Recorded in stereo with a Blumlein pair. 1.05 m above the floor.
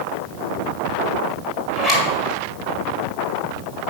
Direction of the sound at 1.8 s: Straight ahead.